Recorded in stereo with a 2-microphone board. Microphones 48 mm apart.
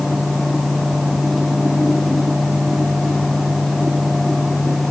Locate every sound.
Only background noise.